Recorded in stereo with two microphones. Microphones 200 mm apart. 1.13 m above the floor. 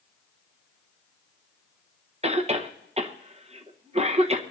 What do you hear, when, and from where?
2.2 s a cough: 30° right (ahead or behind), 1.1 m